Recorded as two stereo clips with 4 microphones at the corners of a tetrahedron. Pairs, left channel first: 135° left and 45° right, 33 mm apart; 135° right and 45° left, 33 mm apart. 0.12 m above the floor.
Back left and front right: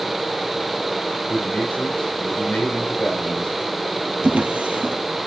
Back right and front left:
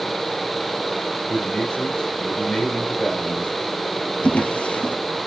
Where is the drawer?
85° right, 1.6 m.